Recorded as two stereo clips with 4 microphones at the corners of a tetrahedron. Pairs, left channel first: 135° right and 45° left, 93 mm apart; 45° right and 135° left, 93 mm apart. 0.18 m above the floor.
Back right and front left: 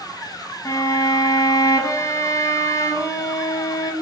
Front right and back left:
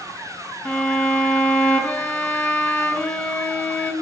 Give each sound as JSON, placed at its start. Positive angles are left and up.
{"t": 0.7, "sound": "a violin", "azimuth_deg": -105, "distance_m": 0.6}